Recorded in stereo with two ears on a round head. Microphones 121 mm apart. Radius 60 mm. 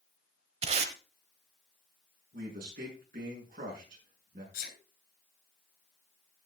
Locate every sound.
0.6 s tape being pulled: 45° right (ahead or behind), 1.1 m
2.3 s a man speaking: 65° right (ahead or behind), 7 m
4.5 s a sneeze: 75° left (ahead or behind), 6 m